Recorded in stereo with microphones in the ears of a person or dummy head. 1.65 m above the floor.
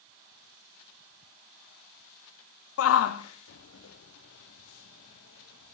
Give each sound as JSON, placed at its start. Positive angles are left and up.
{"t": 2.8, "sound": "a shout", "side_deg": 80, "distance_m": 0.6}